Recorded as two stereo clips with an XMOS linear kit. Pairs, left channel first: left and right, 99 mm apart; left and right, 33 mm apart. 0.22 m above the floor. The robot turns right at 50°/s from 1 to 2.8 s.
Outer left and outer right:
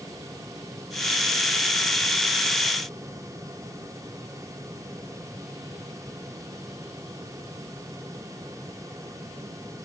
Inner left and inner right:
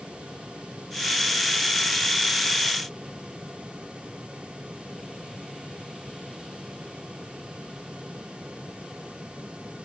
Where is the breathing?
No breathing in this recording.